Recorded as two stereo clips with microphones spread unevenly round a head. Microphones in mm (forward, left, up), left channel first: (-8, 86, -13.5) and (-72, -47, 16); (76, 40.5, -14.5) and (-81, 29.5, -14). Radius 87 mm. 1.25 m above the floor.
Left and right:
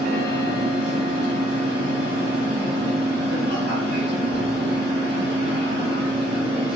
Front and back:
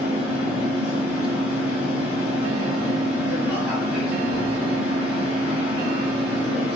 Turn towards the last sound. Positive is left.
turn(degrees=-85)